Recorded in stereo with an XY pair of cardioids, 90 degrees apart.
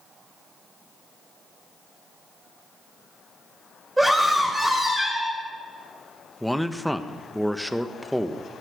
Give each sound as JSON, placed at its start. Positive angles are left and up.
{"t": 4.0, "sound": "a scream", "azimuth_deg": -15, "distance_m": 4.5}
{"t": 6.4, "sound": "a man speaking", "azimuth_deg": 0, "distance_m": 1.2}